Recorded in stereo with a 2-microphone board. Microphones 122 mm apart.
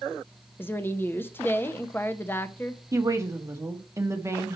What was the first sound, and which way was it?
A woman speaking, 15° left (ahead or behind).